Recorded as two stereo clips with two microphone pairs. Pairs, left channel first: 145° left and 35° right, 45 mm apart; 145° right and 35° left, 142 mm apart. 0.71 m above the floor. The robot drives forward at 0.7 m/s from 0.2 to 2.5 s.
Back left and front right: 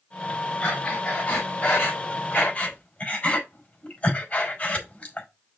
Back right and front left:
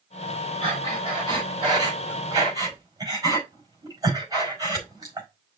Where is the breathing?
85° left, 5 m; by 5.3 s 100° left, 5 m.